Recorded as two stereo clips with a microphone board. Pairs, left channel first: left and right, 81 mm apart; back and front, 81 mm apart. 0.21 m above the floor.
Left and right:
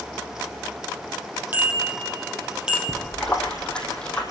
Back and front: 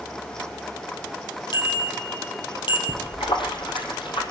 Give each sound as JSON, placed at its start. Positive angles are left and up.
{"t": 1.5, "sound": "a bicycle bell", "azimuth_deg": -155, "distance_m": 5.0}
{"t": 2.9, "sound": "a splash", "azimuth_deg": 170, "distance_m": 3.5}